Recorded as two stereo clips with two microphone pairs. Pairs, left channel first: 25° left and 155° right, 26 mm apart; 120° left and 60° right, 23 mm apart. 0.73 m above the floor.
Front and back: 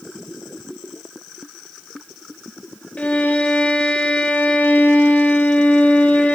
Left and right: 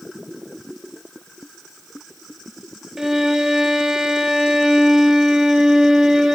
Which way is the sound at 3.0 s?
Straight ahead.